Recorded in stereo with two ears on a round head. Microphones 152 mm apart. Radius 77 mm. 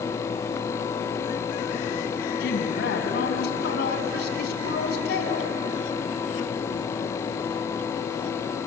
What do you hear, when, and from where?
2.4 s a woman speaking: 60° left (ahead or behind), 3.5 m